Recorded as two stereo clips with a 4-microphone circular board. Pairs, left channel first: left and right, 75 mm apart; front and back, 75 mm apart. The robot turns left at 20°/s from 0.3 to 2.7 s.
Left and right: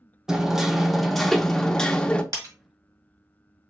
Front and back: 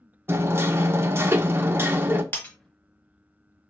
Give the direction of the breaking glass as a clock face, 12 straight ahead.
2 o'clock.